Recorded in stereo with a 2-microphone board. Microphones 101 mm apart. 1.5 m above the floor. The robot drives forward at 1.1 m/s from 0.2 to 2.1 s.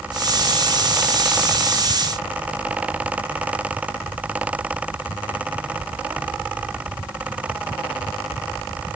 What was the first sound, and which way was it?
Only background noise.